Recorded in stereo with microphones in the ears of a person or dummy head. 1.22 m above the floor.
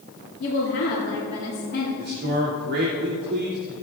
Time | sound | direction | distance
0.4 | a woman speaking | 50° left (ahead or behind) | 2 m
2.0 | a man speaking | 50° right (ahead or behind) | 2.5 m